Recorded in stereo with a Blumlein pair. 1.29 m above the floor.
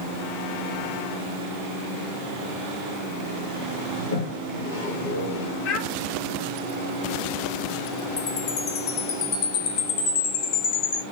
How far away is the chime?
About 1.3 m.